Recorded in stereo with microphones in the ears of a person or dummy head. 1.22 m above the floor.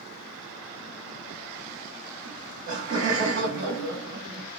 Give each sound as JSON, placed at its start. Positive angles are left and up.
{"t": 2.2, "sound": "laughter", "side_deg": -60, "distance_m": 1.0}